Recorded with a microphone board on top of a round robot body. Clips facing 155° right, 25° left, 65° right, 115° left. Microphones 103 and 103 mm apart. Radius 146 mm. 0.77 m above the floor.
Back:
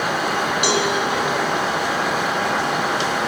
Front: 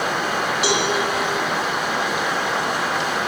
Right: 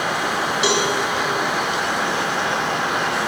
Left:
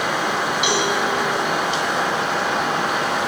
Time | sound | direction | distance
0.6 | a cowbell | 120° right | 2.5 m